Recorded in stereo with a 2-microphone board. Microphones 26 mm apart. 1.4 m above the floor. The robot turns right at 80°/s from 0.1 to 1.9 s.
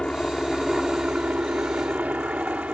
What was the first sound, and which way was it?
A helicopter, 145° left.